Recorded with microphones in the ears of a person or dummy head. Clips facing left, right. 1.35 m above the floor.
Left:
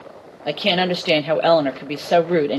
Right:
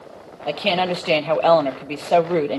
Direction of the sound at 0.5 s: 15° left (ahead or behind).